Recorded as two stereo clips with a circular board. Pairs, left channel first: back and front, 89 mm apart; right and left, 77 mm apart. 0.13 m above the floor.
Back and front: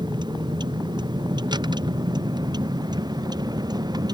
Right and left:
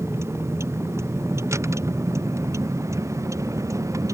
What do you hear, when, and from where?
0.0 s a vehicle: 35° left; by 4.1 s 40° left